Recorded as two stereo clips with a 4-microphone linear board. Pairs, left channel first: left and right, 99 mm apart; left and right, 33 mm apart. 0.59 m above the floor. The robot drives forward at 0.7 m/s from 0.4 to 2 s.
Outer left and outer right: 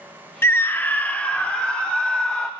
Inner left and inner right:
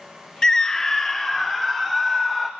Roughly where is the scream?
Left.